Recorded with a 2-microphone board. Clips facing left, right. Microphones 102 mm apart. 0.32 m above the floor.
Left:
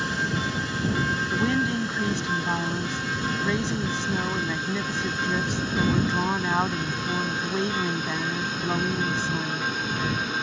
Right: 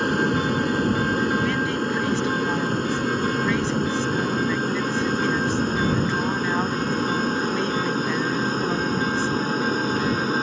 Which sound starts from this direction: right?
An aircraft, at 0.0 s.